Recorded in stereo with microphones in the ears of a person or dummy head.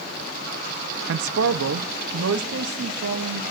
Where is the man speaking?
70° right (ahead or behind), 0.7 m; by 3.4 s 80° right, 3 m.